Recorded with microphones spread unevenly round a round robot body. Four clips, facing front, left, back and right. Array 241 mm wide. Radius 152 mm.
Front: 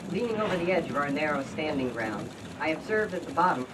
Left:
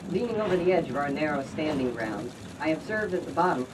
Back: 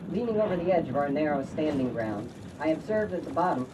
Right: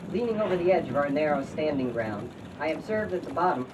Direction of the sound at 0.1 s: 160° right.